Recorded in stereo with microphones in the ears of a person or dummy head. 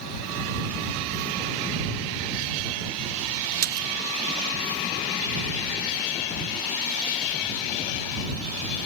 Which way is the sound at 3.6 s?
50° right (ahead or behind).